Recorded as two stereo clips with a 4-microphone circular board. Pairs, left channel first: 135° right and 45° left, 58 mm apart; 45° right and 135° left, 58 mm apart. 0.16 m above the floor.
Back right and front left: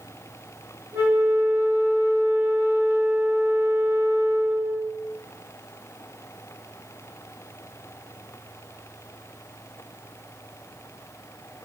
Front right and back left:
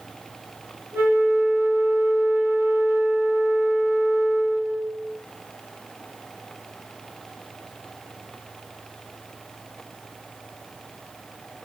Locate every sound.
0.9 s a flute: 95° left, 0.8 m